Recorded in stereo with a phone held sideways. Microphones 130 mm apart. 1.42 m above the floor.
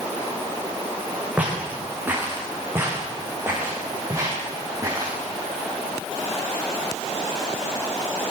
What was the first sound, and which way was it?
Footsteps, 10° right (ahead or behind).